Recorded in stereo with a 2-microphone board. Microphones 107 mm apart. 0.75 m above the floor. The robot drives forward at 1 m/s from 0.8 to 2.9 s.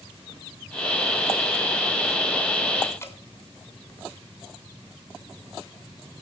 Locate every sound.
3.0 s dripping: 25° left (ahead or behind), 3.5 m